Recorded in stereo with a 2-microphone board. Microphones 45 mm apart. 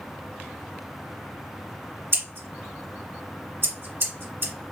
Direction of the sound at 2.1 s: 60° right (ahead or behind).